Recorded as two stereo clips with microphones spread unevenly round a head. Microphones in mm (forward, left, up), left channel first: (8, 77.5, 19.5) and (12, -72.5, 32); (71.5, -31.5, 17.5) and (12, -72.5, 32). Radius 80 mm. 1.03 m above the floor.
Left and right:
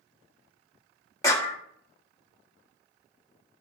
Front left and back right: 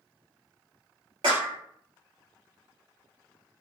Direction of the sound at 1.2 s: 160° left.